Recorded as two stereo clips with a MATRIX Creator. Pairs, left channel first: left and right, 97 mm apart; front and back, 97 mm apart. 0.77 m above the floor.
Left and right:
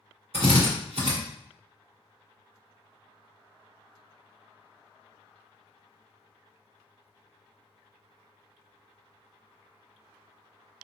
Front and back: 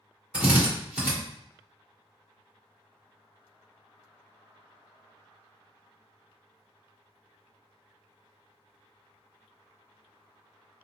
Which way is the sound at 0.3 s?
100° right.